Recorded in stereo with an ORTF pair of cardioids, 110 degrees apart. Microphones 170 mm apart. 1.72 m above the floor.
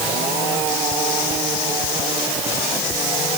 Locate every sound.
Only background noise.